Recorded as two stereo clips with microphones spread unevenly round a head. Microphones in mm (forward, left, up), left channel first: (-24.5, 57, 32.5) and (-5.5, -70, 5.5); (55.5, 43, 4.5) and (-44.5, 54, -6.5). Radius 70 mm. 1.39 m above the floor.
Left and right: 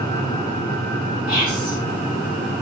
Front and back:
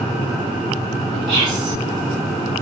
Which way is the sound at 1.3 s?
125° left.